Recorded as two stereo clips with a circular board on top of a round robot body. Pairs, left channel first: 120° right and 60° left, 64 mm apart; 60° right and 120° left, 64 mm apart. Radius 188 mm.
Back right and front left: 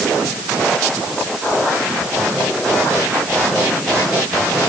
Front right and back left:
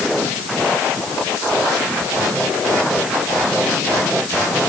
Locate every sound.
Only background noise.